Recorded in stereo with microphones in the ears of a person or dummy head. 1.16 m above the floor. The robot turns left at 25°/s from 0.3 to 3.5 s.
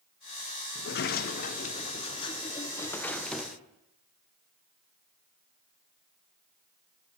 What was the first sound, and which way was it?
A sliding door, 70° left.